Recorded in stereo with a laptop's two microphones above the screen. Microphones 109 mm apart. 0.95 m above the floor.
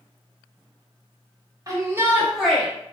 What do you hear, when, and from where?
1.7 s a shout: 35° right (ahead or behind), 0.8 m; by 2.7 s 10° left (ahead or behind), 0.7 m